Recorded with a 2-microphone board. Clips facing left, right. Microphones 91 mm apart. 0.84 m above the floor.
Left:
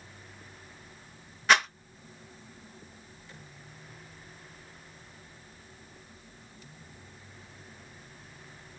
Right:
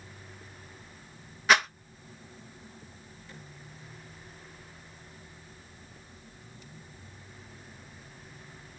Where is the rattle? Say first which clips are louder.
Even; centre (ahead or behind), 0.5 m.